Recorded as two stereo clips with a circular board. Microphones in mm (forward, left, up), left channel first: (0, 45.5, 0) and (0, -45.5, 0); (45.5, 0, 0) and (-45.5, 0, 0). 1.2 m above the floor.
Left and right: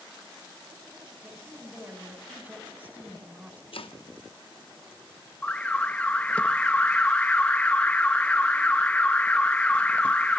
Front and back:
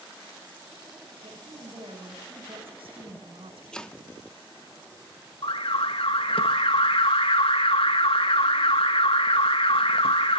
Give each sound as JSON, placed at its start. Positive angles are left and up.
{"t": 1.2, "sound": "a woman speaking", "azimuth_deg": -165, "distance_m": 5.5}
{"t": 3.7, "sound": "chopping", "azimuth_deg": 80, "distance_m": 1.0}
{"t": 5.4, "sound": "an alarm", "azimuth_deg": 15, "distance_m": 0.8}